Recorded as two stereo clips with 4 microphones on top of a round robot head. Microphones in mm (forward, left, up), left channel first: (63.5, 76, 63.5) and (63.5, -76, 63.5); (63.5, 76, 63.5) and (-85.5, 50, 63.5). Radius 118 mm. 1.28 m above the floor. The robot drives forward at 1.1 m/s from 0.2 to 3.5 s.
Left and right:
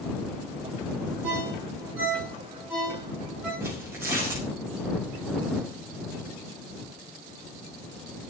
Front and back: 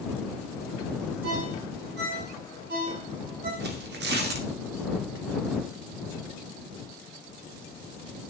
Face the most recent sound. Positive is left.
turn(degrees=-170)